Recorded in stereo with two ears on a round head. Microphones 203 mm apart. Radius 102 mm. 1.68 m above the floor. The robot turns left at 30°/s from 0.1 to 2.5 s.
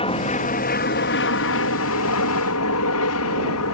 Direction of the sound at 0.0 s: 155° left.